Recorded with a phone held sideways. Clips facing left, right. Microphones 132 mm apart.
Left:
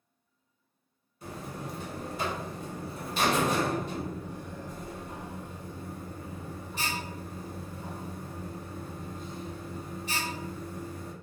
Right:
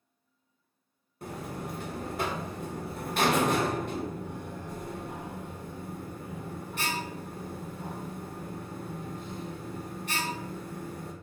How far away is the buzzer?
About 0.6 m.